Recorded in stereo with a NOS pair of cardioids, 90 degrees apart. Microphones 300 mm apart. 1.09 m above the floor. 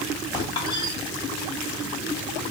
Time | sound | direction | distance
0.3 | a squeak | 15° left | 3 m